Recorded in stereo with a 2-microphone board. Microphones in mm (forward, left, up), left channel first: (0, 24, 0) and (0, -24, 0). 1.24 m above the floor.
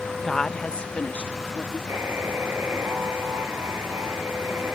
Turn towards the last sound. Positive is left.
turn(degrees=-65)  # may be behind; listen again after turning